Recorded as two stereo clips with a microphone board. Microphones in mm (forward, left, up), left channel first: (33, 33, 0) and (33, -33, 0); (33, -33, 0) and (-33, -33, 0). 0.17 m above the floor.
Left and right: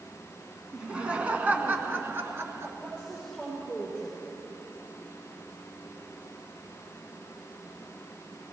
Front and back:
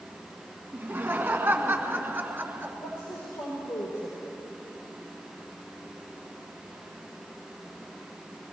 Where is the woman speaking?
5° right, 4.5 m.